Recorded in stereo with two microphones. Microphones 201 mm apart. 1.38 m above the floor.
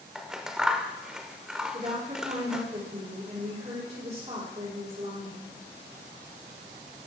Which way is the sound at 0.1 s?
5° right (ahead or behind).